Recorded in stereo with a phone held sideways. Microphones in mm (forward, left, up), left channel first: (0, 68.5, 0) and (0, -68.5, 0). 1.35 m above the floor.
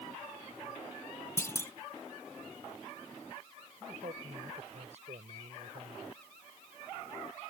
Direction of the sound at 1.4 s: 20° left (ahead or behind).